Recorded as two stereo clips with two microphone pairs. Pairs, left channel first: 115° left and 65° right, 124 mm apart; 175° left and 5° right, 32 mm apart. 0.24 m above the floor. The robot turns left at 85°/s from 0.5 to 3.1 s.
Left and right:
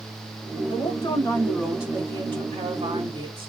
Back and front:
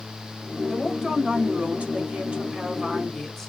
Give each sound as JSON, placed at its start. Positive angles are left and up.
{"t": 0.7, "sound": "a woman speaking", "azimuth_deg": 105, "distance_m": 2.0}